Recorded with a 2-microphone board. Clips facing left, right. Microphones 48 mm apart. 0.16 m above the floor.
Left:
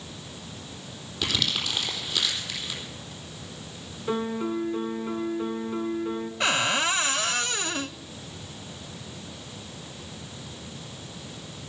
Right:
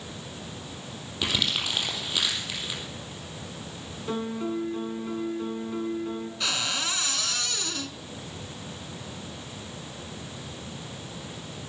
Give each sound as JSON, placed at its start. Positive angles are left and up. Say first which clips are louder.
{"t": 1.2, "sound": "crumpling", "louder": "even", "side_deg": -15, "distance_m": 4.0}
{"t": 4.1, "sound": "a piano", "louder": "left 2 dB", "side_deg": 15, "distance_m": 1.0}
{"t": 6.4, "sound": "a cupboard door", "louder": "left 7 dB", "side_deg": 35, "distance_m": 0.6}